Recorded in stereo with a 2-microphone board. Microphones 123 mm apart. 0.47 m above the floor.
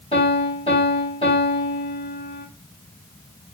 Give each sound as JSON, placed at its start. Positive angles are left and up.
{"t": 0.1, "sound": "a piano", "side_deg": 55, "distance_m": 1.9}